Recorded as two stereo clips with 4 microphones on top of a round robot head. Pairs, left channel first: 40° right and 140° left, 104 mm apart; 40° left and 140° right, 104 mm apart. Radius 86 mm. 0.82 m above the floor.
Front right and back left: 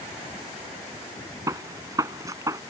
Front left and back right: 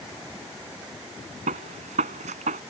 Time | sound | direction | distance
1.5 | a gunshot | 160° right | ?